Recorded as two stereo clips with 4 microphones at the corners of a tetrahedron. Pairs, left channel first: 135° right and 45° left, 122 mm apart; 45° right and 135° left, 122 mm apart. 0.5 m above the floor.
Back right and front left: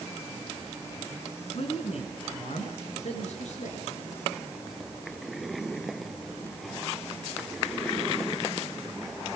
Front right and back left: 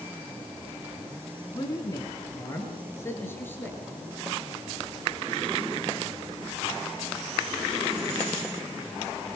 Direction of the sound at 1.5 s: 100° right.